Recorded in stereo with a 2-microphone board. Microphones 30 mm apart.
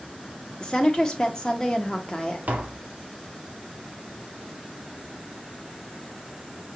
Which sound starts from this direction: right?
Tapping, at 2.5 s.